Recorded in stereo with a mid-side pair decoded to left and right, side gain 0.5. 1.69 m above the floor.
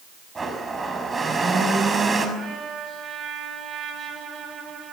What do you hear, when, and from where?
0.3 s a blender: 25° right, 6 m
2.4 s a trumpet: 45° right, 8.5 m